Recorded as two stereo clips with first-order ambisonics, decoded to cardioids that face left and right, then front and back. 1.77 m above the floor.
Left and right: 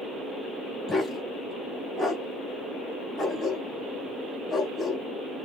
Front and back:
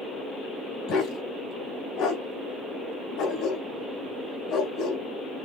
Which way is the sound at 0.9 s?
15° left.